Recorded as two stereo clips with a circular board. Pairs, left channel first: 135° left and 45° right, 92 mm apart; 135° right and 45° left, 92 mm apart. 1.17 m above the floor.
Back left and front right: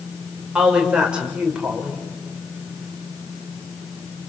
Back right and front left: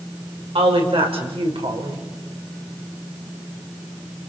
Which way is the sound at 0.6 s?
35° left.